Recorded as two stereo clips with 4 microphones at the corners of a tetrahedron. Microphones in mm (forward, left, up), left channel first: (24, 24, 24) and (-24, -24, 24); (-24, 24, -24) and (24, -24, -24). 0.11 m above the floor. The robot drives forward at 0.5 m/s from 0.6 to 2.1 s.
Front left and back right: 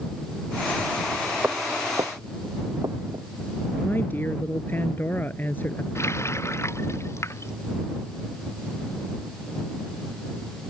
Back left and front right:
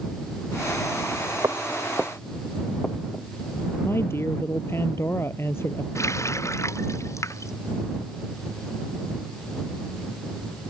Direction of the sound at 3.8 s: 100° left.